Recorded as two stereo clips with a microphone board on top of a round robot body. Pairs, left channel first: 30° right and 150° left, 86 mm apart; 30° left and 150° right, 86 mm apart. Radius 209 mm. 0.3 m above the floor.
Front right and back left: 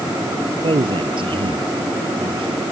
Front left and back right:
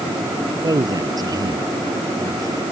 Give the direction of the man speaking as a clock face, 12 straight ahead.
6 o'clock.